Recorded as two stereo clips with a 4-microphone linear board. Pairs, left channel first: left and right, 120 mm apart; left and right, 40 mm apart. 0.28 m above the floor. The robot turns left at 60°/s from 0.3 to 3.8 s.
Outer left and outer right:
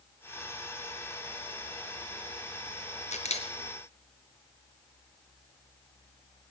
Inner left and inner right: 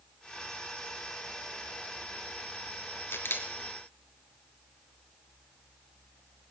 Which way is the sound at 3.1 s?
80° left.